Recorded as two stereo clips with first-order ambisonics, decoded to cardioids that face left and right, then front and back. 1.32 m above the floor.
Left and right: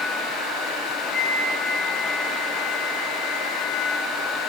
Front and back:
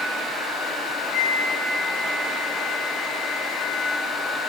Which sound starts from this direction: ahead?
A flute, at 1.1 s.